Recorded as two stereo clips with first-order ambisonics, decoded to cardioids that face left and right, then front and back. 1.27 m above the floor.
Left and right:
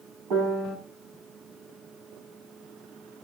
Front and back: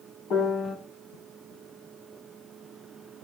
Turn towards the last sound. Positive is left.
turn(degrees=-60)